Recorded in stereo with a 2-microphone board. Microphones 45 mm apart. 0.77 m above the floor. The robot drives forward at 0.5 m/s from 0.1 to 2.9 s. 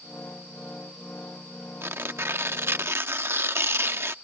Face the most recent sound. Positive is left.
turn(degrees=-65)  # may be behind; listen again after turning